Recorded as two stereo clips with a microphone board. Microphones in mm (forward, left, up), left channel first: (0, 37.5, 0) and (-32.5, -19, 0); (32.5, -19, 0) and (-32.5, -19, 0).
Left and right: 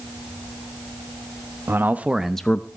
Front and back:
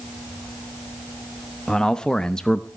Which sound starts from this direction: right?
A man speaking, at 1.7 s.